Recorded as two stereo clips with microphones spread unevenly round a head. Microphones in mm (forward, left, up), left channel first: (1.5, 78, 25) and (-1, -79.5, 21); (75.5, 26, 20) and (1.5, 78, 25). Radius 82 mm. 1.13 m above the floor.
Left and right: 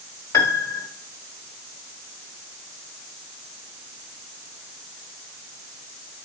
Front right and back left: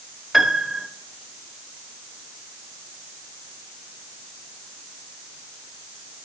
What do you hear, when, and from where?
0.3 s a piano: 65° left, 0.8 m